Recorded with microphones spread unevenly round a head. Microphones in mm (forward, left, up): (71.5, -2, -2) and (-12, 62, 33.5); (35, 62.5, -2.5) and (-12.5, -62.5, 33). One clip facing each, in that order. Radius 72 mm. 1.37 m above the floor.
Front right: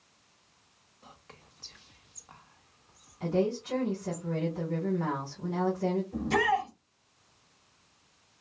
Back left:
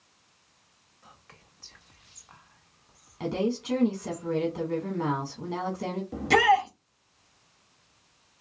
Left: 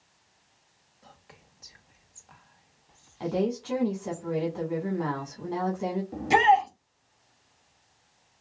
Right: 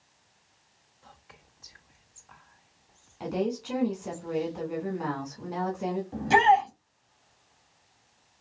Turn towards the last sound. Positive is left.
turn(degrees=145)